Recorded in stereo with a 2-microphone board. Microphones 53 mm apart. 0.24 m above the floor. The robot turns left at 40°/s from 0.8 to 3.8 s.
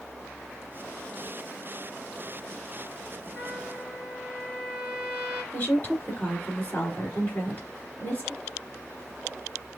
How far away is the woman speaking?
About 2.5 m.